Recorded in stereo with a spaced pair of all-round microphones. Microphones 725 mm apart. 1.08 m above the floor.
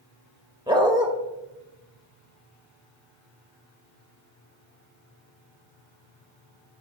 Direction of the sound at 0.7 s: 5° right (ahead or behind).